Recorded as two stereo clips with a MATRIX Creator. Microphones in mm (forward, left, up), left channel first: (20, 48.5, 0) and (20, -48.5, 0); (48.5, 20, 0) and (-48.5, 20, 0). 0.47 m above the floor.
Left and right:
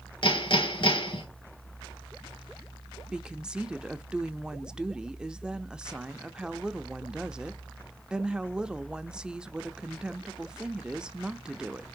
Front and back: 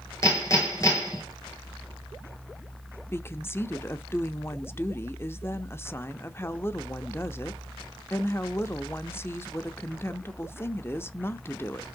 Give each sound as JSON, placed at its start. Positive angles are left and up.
{"t": 0.2, "sound": "hammering", "azimuth_deg": 60, "distance_m": 5.5}
{"t": 3.1, "sound": "a woman speaking", "azimuth_deg": -20, "distance_m": 0.7}